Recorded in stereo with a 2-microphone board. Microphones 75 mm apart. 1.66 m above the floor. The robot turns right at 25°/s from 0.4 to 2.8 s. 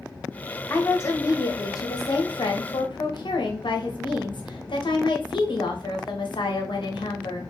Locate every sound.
0.7 s a woman speaking: 25° left, 0.8 m; by 7.4 s 80° left, 0.8 m